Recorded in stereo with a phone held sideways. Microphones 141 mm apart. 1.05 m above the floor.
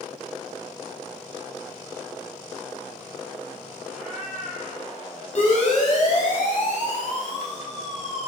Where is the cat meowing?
15° left (ahead or behind), 6 m.